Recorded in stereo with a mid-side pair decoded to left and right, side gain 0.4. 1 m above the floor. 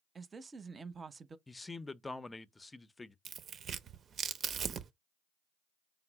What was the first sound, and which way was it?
A woman speaking, 40° right.